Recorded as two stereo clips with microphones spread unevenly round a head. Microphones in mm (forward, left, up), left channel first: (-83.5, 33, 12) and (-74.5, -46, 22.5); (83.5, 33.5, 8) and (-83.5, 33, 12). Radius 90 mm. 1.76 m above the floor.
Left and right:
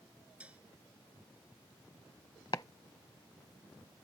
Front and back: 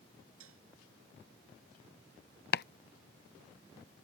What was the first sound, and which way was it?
Dishes clattering, 160° right.